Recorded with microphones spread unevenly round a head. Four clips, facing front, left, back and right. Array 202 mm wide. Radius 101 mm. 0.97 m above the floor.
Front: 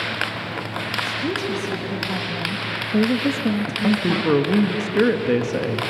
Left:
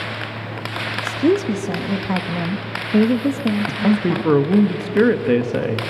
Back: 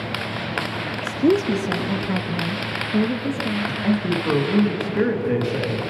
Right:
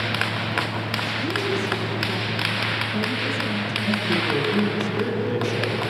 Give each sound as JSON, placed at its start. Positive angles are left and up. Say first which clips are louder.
{"t": 1.0, "sound": "a woman speaking", "louder": "left 13 dB, back 9 dB", "azimuth_deg": 135, "distance_m": 1.5}
{"t": 3.7, "sound": "a man speaking", "louder": "left 7 dB, front 1 dB", "azimuth_deg": 65, "distance_m": 1.6}